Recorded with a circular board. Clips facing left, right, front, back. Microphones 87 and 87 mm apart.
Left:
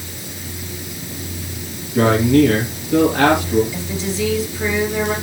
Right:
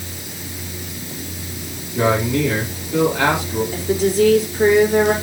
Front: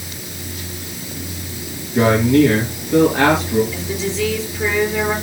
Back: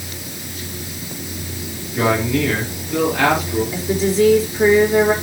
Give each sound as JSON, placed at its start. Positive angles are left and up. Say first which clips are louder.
{"t": 1.9, "sound": "a man speaking", "louder": "left 5 dB, front 5 dB", "azimuth_deg": 60, "distance_m": 4.5}
{"t": 3.7, "sound": "a woman speaking", "louder": "right 7 dB, back 5 dB", "azimuth_deg": -130, "distance_m": 3.5}